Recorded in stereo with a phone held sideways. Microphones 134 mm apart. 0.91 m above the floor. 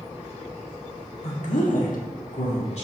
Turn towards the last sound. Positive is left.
turn(degrees=55)  # may be behind; listen again after turning